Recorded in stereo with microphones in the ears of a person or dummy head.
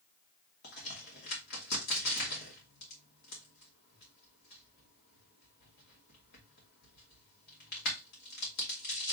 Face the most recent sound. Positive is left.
turn(degrees=50)  # may be behind; listen again after turning